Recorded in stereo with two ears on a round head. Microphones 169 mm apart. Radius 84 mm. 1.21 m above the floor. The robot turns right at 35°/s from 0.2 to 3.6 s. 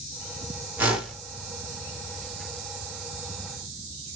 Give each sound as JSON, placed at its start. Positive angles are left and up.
{"t": 0.8, "sound": "a whoosh", "side_deg": -10, "distance_m": 1.1}